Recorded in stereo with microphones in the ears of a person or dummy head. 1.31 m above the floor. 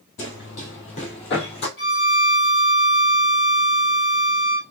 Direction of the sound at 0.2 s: 35° left (ahead or behind).